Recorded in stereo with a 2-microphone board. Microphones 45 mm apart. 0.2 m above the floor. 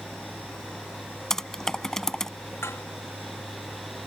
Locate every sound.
1.3 s typing on a keyboard: 15° left (ahead or behind)
2.6 s dishes clattering: 75° left (ahead or behind)